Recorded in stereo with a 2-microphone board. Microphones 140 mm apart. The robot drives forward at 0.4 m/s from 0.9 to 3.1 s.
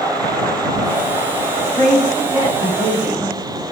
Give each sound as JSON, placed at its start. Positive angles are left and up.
{"t": 1.7, "sound": "a woman speaking", "side_deg": -5, "distance_m": 1.6}